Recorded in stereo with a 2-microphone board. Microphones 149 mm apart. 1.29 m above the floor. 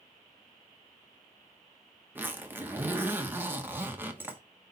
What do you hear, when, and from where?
2.1 s a zipper: 15° right (ahead or behind), 1.1 m